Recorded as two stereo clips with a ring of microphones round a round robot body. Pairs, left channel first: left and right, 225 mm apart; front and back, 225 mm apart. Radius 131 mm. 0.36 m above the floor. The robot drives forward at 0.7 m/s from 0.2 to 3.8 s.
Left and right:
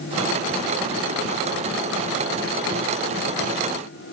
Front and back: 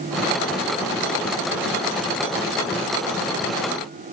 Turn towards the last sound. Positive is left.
No sound to turn to.